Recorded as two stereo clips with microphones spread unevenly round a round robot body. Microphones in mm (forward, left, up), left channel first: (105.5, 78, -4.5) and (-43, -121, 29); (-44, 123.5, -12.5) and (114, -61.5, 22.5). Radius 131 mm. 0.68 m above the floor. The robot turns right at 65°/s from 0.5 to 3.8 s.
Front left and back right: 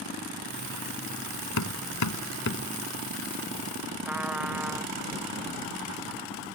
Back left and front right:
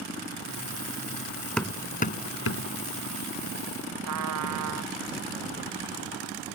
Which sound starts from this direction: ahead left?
Hammering, at 1.6 s.